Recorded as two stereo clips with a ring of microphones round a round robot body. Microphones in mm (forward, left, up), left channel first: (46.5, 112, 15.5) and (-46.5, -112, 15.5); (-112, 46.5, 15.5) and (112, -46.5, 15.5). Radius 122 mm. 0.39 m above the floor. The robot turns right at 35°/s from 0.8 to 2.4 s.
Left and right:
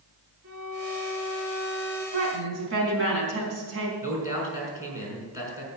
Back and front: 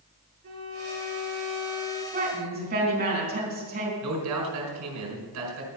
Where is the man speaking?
35° right, 4.5 m.